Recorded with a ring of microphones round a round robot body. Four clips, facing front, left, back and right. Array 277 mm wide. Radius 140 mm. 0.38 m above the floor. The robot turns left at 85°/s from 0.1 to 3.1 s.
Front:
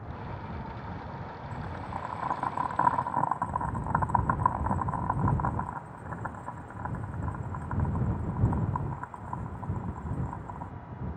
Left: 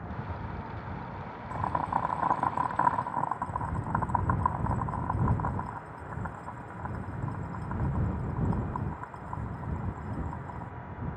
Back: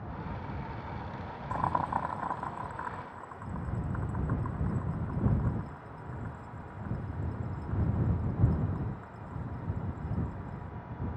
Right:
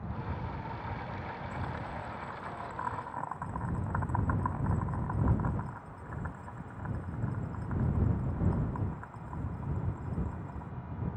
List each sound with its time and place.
1.5 s boiling: 155° left; by 10.7 s 20° left